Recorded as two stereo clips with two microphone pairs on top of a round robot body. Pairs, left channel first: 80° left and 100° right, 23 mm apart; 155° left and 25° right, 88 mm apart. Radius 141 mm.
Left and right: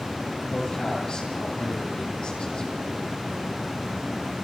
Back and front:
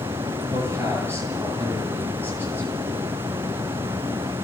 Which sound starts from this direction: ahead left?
A man speaking, at 0.5 s.